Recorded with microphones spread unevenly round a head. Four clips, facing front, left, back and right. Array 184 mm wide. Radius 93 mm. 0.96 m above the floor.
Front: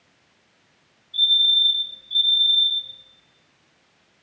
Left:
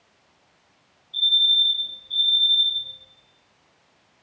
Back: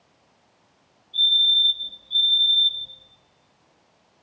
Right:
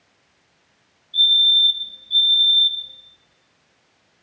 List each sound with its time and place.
1.1 s a fire alarm: 150° left, 3 m